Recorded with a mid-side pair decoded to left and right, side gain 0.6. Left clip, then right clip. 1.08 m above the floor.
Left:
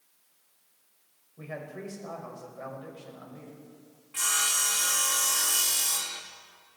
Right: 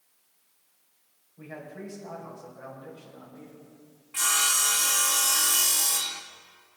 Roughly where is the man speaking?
Ahead left.